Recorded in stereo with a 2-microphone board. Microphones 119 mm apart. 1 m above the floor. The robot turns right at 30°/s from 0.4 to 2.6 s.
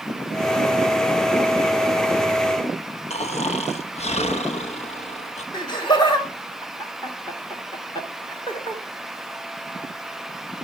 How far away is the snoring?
About 1.0 m.